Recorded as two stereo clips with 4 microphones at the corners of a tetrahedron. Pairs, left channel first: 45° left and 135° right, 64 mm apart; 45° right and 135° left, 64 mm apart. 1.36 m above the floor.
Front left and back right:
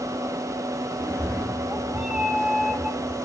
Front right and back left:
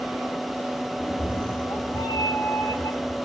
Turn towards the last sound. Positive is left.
turn(degrees=-55)